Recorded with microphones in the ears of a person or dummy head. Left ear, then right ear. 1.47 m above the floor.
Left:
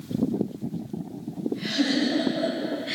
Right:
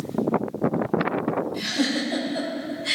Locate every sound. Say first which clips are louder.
1.5 s a giggle: right 1 dB; 80° right, 4 m